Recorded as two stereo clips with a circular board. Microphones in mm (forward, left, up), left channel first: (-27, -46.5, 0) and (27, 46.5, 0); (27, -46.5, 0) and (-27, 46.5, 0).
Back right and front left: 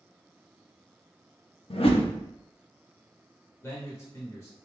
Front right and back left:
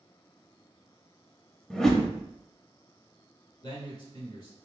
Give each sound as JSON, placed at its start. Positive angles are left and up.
{"t": 1.7, "sound": "a whoosh", "azimuth_deg": -145, "distance_m": 0.6}
{"t": 3.6, "sound": "a man speaking", "azimuth_deg": -65, "distance_m": 1.1}